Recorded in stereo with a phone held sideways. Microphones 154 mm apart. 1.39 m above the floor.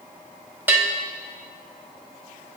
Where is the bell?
15° right (ahead or behind), 0.6 m.